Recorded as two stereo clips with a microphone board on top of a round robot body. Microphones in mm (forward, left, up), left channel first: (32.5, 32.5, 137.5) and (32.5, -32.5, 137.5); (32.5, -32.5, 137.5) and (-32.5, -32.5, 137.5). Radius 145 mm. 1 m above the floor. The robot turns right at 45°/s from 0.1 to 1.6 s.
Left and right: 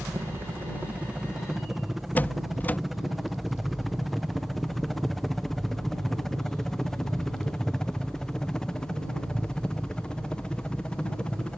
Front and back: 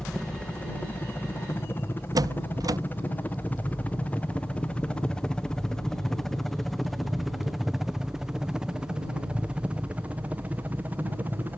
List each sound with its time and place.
0.0 s a helicopter: 75° right; by 11.6 s 155° left
2.1 s a door slam: 155° left